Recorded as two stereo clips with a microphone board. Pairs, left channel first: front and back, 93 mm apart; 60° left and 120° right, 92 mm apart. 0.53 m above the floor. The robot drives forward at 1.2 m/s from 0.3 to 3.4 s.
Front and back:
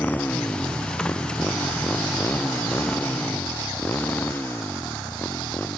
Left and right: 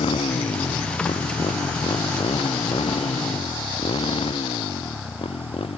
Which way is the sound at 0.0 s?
75° left.